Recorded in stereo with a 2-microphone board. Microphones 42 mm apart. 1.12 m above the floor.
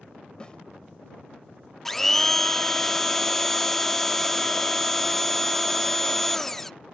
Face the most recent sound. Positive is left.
turn(degrees=5)  # may be behind; listen again after turning